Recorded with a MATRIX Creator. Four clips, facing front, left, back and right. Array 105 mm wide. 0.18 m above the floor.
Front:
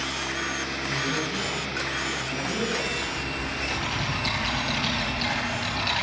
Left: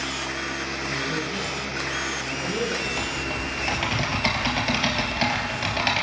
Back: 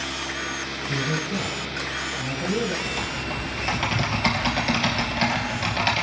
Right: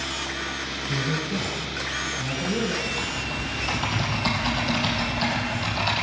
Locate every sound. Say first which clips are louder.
0.9 s a man speaking: right 3 dB, back 3 dB; 150° right, 1.9 m
2.9 s typing on a keyboard: left 1 dB, back 1 dB; 135° left, 2.5 m